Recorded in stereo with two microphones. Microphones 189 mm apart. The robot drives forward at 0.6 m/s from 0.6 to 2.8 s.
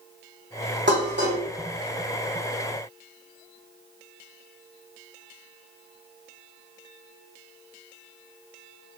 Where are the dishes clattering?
80° right, 1.6 m; by 1.4 s 70° right (ahead or behind), 1.7 m.